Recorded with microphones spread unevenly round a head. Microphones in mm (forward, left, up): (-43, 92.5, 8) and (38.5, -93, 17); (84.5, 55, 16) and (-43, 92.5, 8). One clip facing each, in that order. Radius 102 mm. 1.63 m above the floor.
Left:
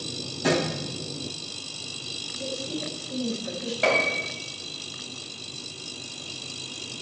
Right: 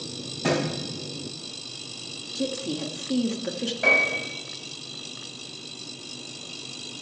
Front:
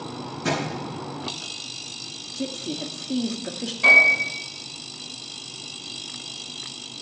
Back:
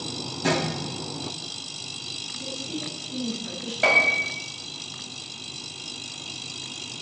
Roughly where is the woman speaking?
Ahead right.